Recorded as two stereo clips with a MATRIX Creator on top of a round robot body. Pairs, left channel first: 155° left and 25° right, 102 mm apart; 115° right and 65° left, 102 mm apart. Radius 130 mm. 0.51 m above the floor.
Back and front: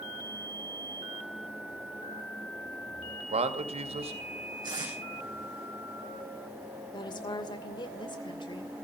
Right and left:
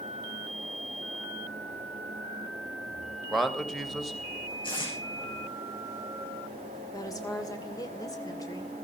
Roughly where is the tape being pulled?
Right.